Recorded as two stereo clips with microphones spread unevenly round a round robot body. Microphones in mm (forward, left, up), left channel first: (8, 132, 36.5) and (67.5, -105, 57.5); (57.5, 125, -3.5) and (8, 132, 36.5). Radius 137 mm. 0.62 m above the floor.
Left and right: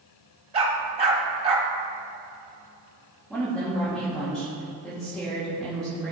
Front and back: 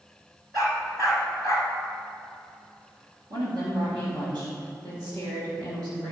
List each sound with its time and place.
0.5 s a dog barking: 145° right, 1.0 m
3.3 s a woman speaking: 170° right, 2 m